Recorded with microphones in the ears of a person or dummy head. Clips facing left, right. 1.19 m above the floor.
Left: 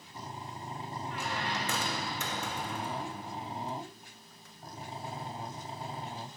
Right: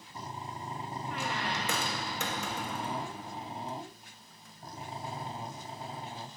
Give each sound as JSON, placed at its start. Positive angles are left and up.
{"t": 1.1, "sound": "a squeak", "side_deg": -55, "distance_m": 0.7}